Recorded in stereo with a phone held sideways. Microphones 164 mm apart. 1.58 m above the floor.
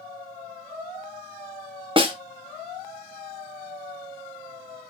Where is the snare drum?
30° right (ahead or behind), 0.9 m.